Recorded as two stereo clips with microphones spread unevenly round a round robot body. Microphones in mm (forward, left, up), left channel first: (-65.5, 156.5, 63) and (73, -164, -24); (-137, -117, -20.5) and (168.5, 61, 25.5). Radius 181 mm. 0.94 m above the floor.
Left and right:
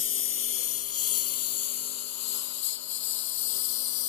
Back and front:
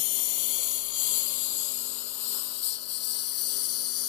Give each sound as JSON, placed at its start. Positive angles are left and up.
{"t": 0.0, "sound": "a lawn mower", "azimuth_deg": 170}